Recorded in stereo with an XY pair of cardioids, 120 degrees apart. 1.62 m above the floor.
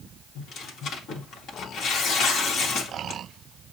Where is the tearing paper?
70° left, 1.7 m.